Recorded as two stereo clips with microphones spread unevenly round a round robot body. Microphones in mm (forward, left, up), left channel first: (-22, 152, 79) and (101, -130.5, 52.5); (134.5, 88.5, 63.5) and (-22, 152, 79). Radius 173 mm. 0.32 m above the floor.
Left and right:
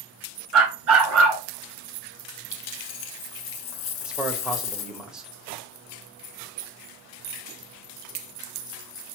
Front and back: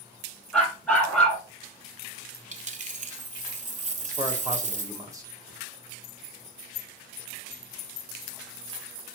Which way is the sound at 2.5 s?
115° left.